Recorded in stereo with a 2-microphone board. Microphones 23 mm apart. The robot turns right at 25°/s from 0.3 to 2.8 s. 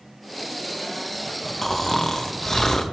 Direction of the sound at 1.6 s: 10° left (ahead or behind).